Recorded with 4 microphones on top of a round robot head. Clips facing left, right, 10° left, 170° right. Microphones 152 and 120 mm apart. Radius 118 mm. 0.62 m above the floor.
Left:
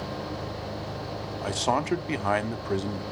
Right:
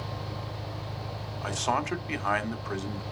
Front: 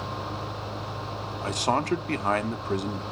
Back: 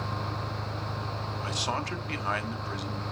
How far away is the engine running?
About 5.5 m.